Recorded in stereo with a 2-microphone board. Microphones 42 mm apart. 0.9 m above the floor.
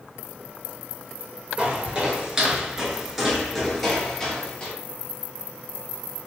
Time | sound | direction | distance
1.6 | footsteps | 30° right (ahead or behind) | 1.1 m